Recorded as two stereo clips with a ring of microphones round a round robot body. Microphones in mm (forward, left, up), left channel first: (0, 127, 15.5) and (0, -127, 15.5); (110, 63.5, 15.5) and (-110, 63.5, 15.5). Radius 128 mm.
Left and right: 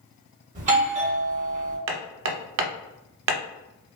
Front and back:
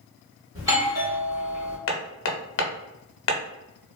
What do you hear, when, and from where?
0.6 s a doorbell: 120° right, 1.5 m
1.9 s hammering: 45° right, 0.5 m